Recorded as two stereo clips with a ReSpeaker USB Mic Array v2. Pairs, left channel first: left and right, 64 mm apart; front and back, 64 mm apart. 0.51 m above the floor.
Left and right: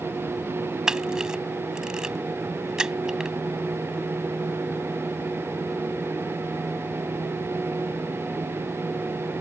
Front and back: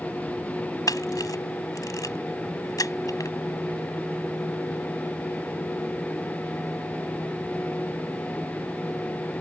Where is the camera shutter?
10° right.